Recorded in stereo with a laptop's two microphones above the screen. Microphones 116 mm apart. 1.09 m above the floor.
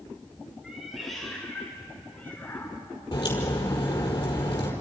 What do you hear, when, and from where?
0.6 s a cat meowing: 5° right (ahead or behind), 6 m; by 2.8 s 20° left (ahead or behind), 5 m
3.1 s a crack: 35° left (ahead or behind), 5.5 m